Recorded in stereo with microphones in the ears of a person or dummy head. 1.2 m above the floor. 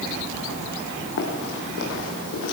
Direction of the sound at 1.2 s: 55° left (ahead or behind).